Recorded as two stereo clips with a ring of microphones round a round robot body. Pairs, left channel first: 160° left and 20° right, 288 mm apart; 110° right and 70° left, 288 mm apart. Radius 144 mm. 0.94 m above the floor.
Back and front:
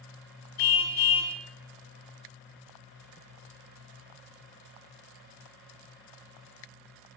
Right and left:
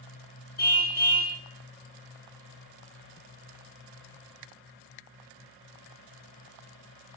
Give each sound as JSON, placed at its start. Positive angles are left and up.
{"t": 0.6, "sound": "a car horn", "azimuth_deg": -170, "distance_m": 4.0}